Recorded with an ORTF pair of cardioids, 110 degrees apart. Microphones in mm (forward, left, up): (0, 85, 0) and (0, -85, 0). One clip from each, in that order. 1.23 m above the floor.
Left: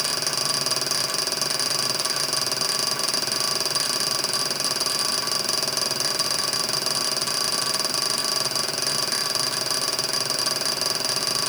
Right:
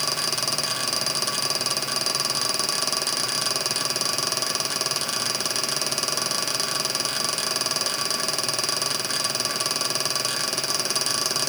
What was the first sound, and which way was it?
Only background noise.